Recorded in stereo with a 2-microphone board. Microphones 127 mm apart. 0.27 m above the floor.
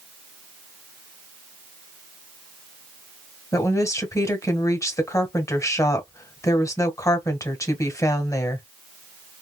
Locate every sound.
3.5 s a woman speaking: 25° left (ahead or behind), 1.4 m